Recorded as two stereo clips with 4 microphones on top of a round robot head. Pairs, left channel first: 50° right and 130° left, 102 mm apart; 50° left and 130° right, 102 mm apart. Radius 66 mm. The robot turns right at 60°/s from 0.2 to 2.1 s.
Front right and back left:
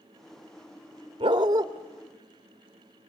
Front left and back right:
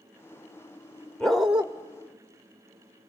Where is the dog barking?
130° left, 0.9 m; by 1.7 s 160° left, 0.9 m.